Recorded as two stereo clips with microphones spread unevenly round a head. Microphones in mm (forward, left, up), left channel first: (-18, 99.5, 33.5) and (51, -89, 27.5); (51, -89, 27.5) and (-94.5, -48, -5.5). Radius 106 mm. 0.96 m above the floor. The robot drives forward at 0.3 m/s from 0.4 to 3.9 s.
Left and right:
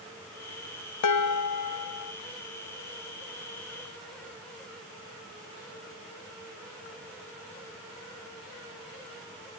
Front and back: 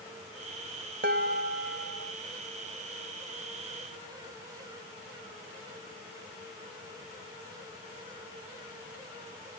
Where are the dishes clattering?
105° left, 0.6 m; by 2.1 s 130° left, 0.8 m.